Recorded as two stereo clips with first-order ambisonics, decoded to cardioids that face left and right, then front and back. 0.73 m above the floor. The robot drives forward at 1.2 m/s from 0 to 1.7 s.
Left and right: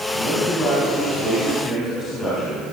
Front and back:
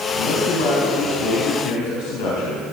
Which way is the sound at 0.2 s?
15° left.